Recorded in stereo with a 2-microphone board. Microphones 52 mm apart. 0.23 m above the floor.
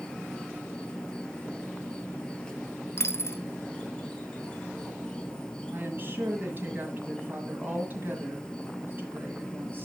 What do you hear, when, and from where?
0.0 s an insect: 20° left (ahead or behind), 0.8 m
3.0 s a dropped coin: 60° left (ahead or behind), 0.6 m
5.7 s a woman speaking: 40° right (ahead or behind), 1.7 m